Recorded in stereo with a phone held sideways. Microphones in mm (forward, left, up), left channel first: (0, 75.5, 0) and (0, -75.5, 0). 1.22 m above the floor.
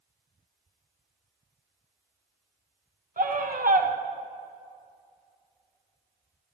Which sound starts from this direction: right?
A scream, at 3.2 s.